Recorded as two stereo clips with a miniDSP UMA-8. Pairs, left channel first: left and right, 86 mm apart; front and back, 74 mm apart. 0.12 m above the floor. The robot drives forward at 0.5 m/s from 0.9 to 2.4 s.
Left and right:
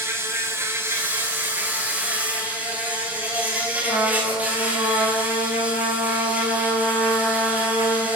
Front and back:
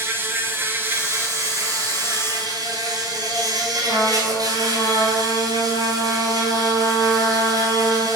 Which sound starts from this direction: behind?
A trumpet, at 3.9 s.